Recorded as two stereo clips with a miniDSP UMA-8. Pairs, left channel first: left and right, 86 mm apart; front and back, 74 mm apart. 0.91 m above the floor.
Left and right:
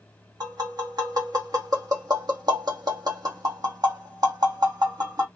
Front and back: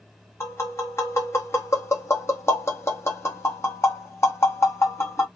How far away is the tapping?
About 1.1 m.